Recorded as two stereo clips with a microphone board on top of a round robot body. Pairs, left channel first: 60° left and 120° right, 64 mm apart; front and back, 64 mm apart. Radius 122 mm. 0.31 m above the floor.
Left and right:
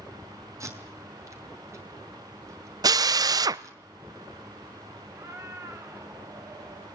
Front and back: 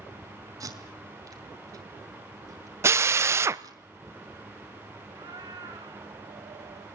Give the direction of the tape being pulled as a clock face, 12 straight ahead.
5 o'clock.